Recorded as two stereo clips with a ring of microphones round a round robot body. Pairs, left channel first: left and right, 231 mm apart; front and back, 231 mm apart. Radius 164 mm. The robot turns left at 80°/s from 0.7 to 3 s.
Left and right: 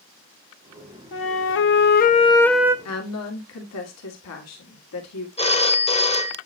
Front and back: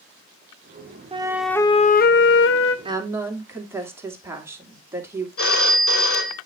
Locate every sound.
1.1 s a flute: 115° left, 0.6 m; by 2.8 s 15° right, 0.6 m
2.9 s a woman speaking: 115° left, 2 m; by 5.3 s 100° left, 2 m
5.4 s a phone ringing: 25° left, 2.0 m